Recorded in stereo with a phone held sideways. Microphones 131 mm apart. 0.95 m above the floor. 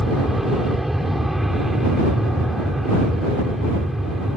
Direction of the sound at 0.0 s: Centre (ahead or behind).